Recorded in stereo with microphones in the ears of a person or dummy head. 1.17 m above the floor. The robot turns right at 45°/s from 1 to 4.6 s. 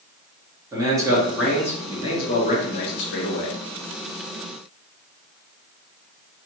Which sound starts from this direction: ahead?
A man speaking, at 0.7 s.